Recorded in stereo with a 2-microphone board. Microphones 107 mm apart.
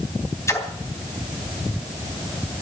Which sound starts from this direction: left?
A splash, at 0.5 s.